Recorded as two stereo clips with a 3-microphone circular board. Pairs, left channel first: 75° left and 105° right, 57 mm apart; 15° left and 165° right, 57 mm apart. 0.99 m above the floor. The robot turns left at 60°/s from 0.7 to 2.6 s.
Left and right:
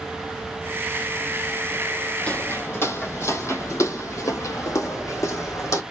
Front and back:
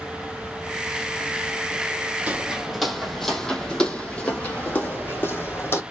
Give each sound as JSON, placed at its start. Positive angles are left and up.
{"t": 2.3, "sound": "footsteps", "azimuth_deg": 135, "distance_m": 2.0}